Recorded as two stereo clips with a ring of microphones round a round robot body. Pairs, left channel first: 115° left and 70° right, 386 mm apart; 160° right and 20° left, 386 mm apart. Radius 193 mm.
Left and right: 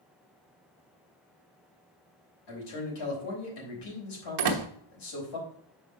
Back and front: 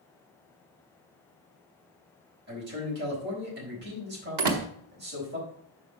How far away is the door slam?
About 1.0 m.